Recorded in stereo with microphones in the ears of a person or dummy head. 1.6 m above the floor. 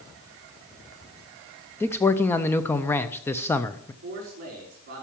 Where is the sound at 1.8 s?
10° left (ahead or behind), 0.6 m.